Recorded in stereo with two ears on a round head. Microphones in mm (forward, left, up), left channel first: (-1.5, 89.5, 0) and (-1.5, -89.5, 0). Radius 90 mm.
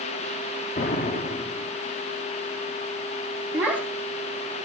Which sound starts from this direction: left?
An explosion, at 0.8 s.